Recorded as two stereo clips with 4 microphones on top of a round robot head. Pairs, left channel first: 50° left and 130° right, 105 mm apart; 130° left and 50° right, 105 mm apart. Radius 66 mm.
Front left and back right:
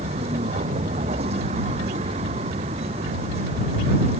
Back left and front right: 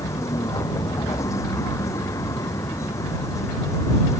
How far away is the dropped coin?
No dropped coin in this recording.